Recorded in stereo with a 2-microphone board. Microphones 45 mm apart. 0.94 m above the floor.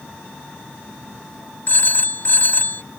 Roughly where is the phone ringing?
Left.